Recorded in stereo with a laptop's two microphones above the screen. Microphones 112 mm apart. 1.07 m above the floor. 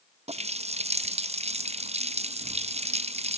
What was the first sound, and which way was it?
A running tap, 75° right (ahead or behind).